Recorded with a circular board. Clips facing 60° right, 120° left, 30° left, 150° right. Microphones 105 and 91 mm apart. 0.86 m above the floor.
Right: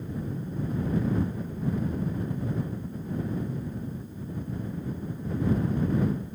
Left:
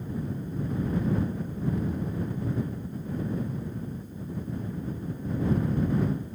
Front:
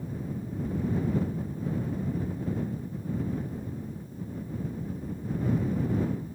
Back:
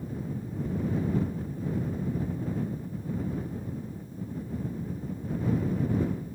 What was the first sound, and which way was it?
Only background noise.